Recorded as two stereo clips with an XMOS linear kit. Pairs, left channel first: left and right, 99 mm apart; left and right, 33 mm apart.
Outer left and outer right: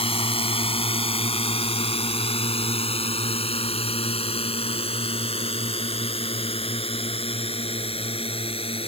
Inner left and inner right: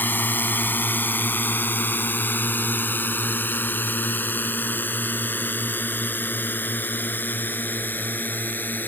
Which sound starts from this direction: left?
A drone, at 0.0 s.